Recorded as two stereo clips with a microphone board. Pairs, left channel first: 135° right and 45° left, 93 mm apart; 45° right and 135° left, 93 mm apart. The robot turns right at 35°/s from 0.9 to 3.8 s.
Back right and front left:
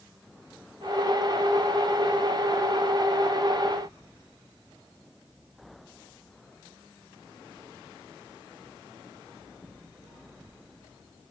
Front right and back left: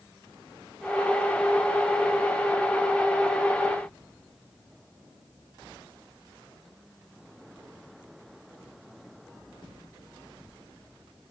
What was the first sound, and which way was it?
Only background noise.